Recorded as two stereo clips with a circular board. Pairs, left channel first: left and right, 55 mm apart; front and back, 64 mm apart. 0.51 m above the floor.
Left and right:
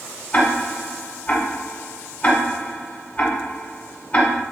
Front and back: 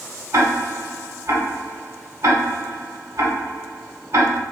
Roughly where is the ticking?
Behind left.